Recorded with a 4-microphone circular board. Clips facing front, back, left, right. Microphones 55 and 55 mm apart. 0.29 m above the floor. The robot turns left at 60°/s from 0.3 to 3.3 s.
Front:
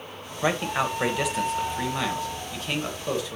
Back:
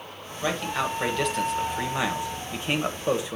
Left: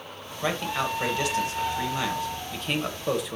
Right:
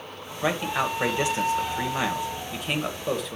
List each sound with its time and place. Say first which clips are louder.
0.4 s a man speaking: front 2 dB, right 2 dB; 25° right, 1.2 m; by 3.4 s 165° left, 1.2 m